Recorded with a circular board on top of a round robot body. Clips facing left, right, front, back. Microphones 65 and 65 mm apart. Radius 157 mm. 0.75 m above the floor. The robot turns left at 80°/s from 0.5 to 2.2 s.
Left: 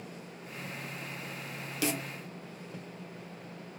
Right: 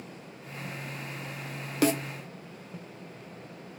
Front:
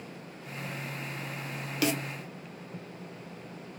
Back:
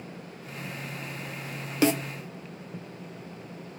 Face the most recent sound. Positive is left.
turn(degrees=-155)